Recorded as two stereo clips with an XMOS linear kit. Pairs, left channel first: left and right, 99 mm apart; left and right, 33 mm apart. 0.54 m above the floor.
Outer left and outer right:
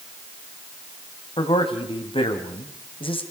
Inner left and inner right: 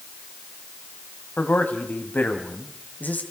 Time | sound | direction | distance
1.4 | a man speaking | 55° left (ahead or behind) | 3 m